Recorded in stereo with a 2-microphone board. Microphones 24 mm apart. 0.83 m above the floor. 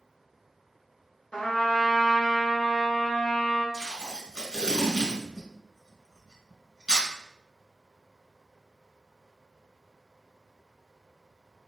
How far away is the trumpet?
About 1.1 m.